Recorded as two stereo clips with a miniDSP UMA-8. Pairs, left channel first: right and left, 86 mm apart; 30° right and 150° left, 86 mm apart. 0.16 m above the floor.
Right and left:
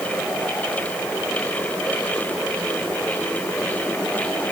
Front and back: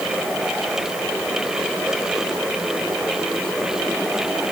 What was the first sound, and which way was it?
Only background noise.